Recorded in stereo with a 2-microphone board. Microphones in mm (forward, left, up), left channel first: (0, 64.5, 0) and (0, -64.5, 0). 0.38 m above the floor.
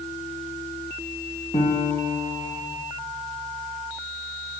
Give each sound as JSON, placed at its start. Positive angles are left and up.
{"t": 1.5, "sound": "a piano", "side_deg": 55, "distance_m": 2.5}